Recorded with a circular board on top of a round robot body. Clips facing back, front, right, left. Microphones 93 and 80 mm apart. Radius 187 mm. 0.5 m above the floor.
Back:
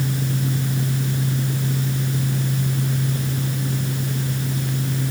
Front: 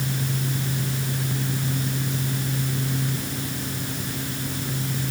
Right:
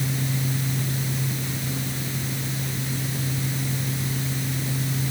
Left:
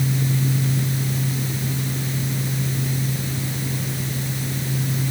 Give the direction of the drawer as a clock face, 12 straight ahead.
I don't hear a drawer.